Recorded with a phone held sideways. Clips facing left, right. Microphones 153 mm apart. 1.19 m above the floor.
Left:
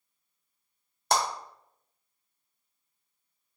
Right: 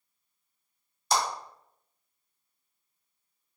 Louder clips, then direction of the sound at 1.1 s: Left 1 dB; 60° left (ahead or behind).